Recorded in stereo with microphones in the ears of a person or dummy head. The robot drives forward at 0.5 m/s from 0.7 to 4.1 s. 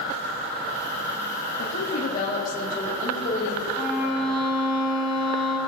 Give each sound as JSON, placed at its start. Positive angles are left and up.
{"t": 1.6, "sound": "a woman speaking", "side_deg": 60, "distance_m": 1.3}
{"t": 3.8, "sound": "a violin", "side_deg": 0, "distance_m": 1.6}